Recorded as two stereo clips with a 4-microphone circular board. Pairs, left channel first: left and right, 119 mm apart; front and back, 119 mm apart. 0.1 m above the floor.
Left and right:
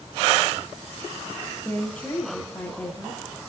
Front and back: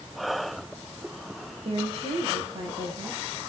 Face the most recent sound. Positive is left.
turn(degrees=165)